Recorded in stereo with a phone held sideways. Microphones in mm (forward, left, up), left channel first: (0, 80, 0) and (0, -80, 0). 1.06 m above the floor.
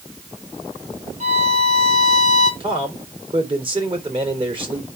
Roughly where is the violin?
Right.